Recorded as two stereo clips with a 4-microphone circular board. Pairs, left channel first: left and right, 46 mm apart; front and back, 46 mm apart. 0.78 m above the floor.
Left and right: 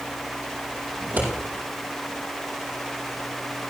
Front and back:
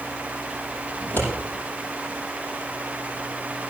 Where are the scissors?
40° right, 8 m.